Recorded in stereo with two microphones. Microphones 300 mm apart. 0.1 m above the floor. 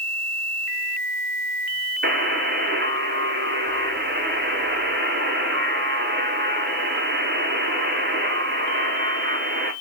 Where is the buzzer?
35° right (ahead or behind), 0.6 m.